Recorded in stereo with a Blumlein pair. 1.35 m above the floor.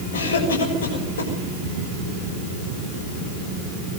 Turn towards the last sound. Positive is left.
turn(degrees=65)